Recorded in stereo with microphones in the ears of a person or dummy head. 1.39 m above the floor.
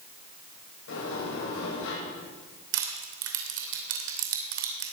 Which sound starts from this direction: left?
A sliding door, at 0.9 s.